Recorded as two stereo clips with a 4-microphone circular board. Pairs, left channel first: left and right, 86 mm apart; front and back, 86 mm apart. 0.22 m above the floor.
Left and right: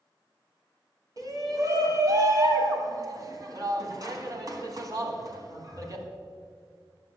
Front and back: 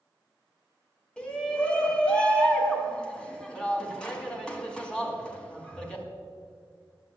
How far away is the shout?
About 2 m.